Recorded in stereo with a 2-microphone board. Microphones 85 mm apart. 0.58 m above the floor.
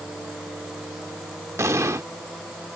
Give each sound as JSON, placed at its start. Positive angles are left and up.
{"t": 1.6, "sound": "an explosion", "side_deg": -35}